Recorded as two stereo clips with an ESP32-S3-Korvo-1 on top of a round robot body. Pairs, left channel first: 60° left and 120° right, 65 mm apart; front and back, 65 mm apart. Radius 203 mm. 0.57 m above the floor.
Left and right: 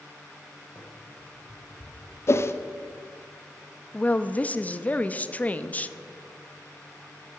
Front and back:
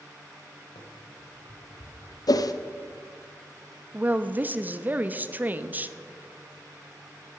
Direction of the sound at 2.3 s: 15° left.